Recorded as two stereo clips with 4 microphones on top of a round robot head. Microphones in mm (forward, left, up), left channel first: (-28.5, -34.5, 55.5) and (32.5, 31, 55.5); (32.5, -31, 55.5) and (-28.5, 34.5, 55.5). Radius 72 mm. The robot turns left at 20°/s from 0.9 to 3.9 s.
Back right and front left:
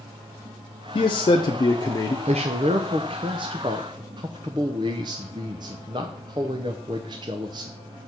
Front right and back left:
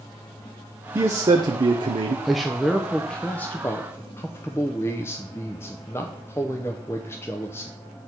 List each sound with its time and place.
0.9 s a man speaking: 170° right, 0.7 m; by 2.1 s 170° left, 0.7 m
2.2 s a man speaking: 45° left, 0.6 m; by 7.7 s 15° left, 0.6 m